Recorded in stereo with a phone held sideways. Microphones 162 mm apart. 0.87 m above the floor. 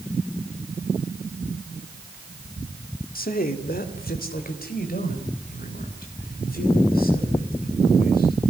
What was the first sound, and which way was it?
A man speaking, 65° left (ahead or behind).